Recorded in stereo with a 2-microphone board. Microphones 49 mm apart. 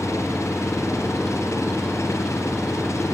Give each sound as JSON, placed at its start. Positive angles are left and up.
{"t": 0.0, "sound": "an engine running", "side_deg": 85}